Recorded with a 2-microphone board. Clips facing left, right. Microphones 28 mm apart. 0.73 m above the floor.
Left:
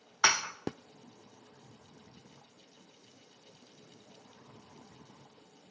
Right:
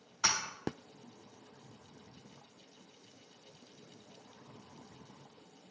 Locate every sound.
0.2 s dishes clattering: 45° left (ahead or behind), 0.6 m